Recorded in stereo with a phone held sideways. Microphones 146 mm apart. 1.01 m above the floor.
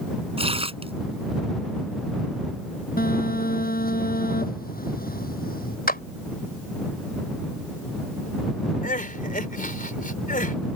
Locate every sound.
0.4 s tearing paper: 40° right (ahead or behind)
3.0 s a phone buzzing: 75° left (ahead or behind)
5.9 s a clap: 80° left
8.8 s crying: 65° left (ahead or behind)